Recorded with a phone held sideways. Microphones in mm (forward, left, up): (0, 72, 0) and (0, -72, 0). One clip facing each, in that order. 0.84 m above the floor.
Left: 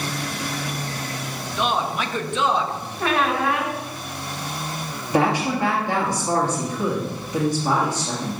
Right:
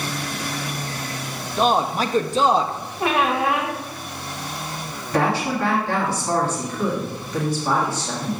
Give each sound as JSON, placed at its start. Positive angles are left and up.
{"t": 1.6, "sound": "a man speaking", "side_deg": -35, "distance_m": 0.6}
{"t": 3.0, "sound": "a squeak", "side_deg": -15, "distance_m": 1.0}
{"t": 5.1, "sound": "a woman speaking", "side_deg": 15, "distance_m": 1.6}